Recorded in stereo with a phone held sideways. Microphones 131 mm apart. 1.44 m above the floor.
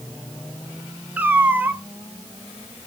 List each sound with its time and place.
1.2 s a cat meowing: 15° right (ahead or behind), 1.0 m